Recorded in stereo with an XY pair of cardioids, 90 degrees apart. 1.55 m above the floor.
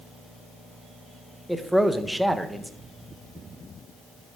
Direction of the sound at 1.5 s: 5° right.